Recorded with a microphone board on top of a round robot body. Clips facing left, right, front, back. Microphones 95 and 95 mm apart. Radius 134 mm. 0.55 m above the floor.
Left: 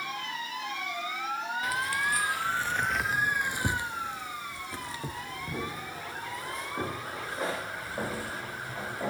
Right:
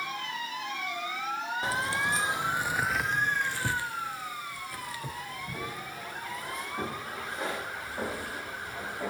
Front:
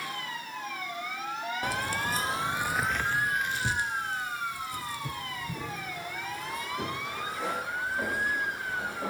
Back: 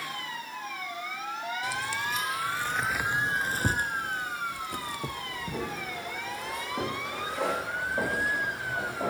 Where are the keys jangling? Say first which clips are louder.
Right 1 dB, front 3 dB; 30° right, 1.0 m; by 9.1 s 150° left, 3.5 m.